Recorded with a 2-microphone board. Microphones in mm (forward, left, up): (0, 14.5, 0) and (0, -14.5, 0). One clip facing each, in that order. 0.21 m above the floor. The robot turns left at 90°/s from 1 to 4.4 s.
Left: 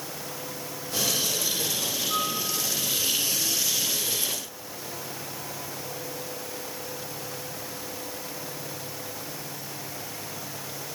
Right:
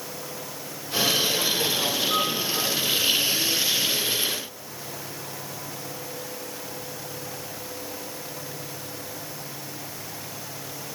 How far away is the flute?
About 10 m.